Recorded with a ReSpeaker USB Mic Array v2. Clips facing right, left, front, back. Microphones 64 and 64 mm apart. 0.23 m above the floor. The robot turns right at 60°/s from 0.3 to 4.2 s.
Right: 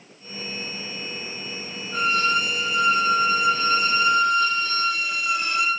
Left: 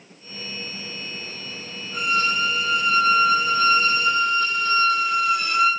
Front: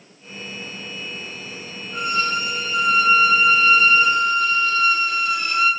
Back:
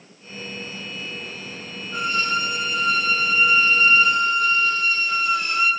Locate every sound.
1.9 s a violin: 140° right, 1.2 m; by 5.7 s 5° right, 1.2 m